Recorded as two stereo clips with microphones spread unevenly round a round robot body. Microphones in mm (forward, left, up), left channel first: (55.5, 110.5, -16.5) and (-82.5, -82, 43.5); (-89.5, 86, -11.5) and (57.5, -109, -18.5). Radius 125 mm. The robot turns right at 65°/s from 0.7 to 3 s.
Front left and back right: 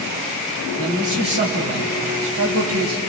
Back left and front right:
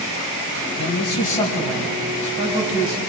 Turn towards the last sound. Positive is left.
turn(degrees=-65)